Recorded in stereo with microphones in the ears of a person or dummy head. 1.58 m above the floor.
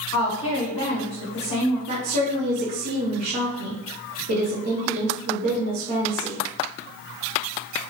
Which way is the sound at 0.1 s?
25° left (ahead or behind).